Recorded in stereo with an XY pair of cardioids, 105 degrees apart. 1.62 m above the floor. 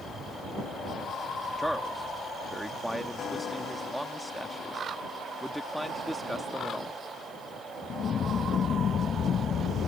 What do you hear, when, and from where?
1.6 s a man speaking: straight ahead